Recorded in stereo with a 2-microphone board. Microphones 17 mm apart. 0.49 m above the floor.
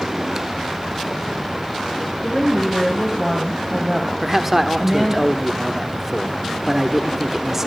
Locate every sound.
2.2 s a woman speaking: 15° right (ahead or behind), 3 m
4.2 s a man speaking: 20° right (ahead or behind), 1.1 m